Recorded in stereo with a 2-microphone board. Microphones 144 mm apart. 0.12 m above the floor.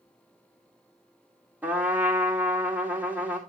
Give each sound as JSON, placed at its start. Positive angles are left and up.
{"t": 1.6, "sound": "a trumpet", "side_deg": -10, "distance_m": 2.0}